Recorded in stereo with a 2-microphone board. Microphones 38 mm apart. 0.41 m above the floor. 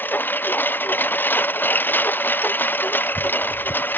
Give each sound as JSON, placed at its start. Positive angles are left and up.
{"t": 0.0, "sound": "a lawn mower", "side_deg": 55}